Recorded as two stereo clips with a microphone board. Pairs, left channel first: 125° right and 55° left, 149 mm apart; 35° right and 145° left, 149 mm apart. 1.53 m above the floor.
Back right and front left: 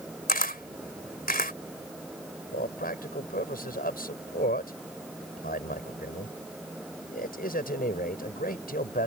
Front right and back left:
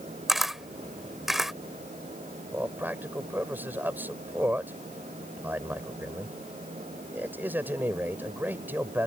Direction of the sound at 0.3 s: 125° right.